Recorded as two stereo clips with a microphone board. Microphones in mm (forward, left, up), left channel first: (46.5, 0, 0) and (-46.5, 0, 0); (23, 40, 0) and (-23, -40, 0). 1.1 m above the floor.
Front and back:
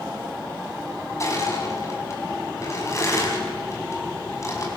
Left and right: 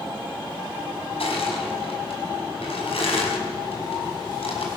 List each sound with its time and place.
1.2 s crushing: 55° left, 5.5 m